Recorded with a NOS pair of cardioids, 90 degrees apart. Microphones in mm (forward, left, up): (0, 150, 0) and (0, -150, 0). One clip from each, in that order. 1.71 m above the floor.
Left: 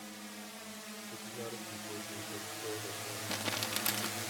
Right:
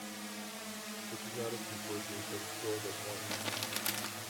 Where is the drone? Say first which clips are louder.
Right 3 dB; 25° right; by 4.3 s 50° left.